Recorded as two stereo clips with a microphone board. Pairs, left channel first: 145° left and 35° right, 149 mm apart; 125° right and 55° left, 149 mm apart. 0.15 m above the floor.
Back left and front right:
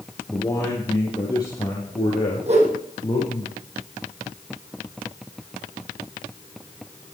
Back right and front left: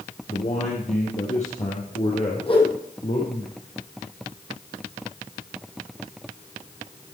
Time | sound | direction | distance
0.3 | a man speaking | 145° right | 3 m
2.5 | a whoosh | 75° right | 4 m